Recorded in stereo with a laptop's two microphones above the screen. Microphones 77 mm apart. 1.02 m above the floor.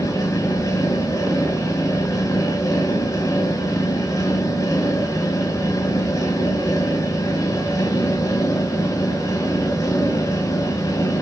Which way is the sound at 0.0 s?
45° left (ahead or behind).